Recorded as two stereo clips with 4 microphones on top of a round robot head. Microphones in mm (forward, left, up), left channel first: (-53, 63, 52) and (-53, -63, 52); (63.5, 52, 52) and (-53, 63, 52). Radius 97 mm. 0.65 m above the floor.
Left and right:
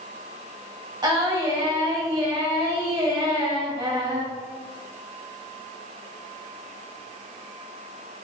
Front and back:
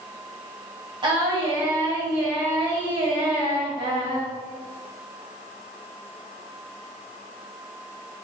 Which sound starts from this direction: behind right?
Singing, at 1.0 s.